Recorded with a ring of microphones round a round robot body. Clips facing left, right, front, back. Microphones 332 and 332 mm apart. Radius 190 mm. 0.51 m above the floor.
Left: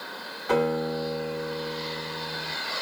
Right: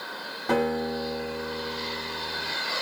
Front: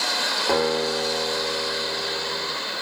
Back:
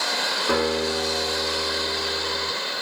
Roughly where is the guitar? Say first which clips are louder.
Left 1 dB, front 1 dB; right.